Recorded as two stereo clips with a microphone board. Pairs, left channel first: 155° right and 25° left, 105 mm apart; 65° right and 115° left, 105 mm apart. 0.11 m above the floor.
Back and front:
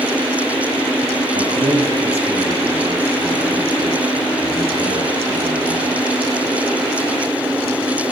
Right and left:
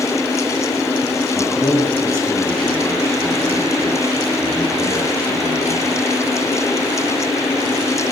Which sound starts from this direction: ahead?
A man speaking, at 1.4 s.